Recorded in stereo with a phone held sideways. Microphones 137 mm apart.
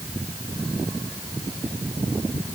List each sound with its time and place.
Only background noise.